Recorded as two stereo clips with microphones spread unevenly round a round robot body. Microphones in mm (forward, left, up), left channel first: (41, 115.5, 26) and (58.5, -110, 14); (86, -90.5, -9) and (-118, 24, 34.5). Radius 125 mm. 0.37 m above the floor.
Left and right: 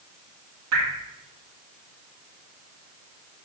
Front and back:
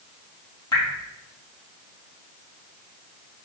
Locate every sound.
0.7 s dripping: 100° right, 1.6 m